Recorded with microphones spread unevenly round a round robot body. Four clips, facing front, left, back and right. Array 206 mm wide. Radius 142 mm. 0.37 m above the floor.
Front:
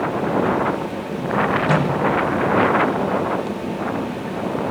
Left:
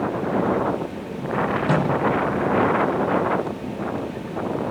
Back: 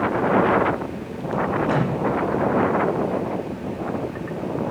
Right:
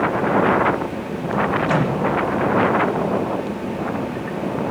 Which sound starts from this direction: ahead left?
A microwave, at 1.7 s.